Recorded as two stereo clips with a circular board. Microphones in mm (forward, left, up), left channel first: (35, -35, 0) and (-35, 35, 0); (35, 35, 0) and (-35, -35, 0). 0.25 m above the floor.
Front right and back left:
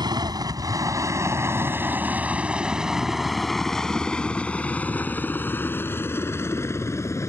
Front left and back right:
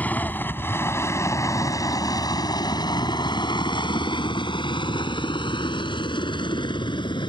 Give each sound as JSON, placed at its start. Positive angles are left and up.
{"t": 0.0, "sound": "a helicopter", "azimuth_deg": 115}